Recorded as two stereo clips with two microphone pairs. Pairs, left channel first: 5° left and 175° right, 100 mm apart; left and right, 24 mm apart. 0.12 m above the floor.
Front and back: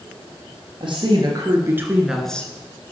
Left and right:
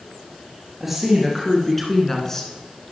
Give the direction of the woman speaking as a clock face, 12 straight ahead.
5 o'clock.